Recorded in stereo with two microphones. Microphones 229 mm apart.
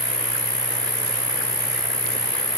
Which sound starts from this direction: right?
An insect, at 0.0 s.